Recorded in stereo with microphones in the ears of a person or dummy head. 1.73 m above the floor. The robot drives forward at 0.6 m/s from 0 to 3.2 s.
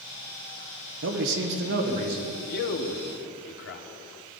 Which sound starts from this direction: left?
A man speaking, at 2.5 s.